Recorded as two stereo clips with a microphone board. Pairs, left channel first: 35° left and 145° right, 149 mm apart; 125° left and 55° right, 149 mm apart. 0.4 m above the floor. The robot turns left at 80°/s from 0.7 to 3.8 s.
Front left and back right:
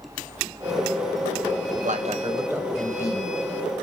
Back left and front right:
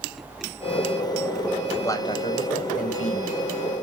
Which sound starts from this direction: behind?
A man speaking, at 1.8 s.